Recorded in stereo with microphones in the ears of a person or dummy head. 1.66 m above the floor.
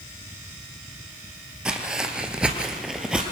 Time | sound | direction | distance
1.6 | footsteps | 5° right (ahead or behind) | 1.9 m